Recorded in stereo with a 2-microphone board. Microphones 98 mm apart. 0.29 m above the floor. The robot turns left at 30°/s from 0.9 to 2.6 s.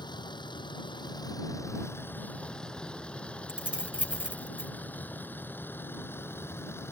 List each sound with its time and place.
0.0 s a vehicle: 50° left (ahead or behind); by 6.9 s 25° left (ahead or behind)
3.5 s keys jangling: 10° right (ahead or behind)